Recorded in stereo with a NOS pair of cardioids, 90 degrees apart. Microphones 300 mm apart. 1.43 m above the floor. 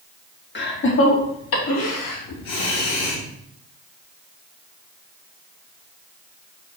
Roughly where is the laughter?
Ahead left.